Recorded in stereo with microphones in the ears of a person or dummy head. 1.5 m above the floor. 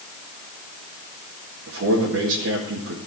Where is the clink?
I don't hear a clink.